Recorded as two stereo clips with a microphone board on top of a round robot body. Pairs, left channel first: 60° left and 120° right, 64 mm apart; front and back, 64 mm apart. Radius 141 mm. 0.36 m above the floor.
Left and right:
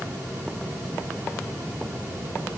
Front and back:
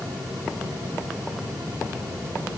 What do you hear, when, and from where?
Only background noise.